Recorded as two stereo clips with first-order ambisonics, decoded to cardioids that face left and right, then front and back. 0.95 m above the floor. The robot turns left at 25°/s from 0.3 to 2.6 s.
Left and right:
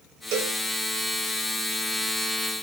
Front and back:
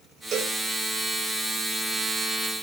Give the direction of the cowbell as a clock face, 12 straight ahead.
4 o'clock.